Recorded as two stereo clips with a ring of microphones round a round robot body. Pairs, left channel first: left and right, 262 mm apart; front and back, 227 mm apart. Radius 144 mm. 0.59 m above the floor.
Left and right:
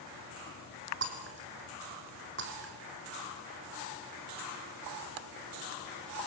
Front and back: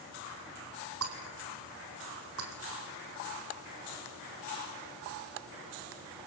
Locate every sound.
1.0 s breaking glass: 140° right, 3 m